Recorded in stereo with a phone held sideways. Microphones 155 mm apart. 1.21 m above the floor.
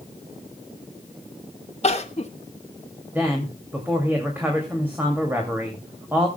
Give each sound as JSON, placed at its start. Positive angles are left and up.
{"t": 1.8, "sound": "crying", "side_deg": 40, "distance_m": 1.3}
{"t": 3.1, "sound": "a woman speaking", "side_deg": -15, "distance_m": 2.5}